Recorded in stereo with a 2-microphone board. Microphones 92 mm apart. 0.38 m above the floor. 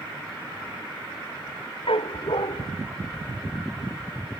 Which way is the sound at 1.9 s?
80° left.